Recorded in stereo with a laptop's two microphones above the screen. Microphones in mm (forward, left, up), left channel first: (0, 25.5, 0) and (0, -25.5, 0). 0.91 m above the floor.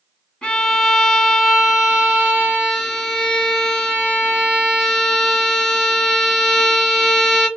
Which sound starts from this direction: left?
A violin, at 0.4 s.